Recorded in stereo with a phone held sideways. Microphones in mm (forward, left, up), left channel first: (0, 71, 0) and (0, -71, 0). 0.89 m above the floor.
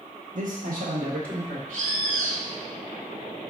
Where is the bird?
60° right (ahead or behind), 1.4 m.